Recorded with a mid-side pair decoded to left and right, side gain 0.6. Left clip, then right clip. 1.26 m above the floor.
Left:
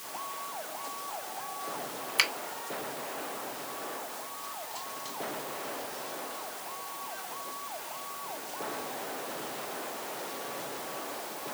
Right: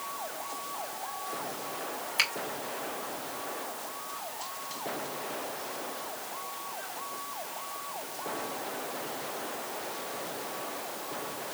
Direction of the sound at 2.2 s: 25° left.